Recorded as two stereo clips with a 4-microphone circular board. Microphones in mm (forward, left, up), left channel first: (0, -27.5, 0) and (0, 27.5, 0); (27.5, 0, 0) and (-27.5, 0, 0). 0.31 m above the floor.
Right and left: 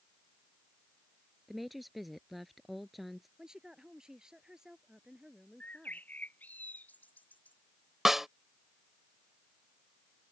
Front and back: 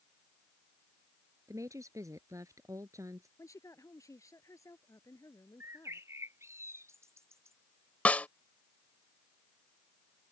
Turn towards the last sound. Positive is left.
turn(degrees=15)